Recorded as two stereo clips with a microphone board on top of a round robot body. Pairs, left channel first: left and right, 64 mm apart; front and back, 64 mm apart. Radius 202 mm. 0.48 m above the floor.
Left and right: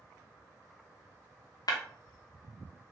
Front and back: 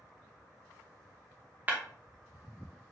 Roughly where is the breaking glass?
Behind left.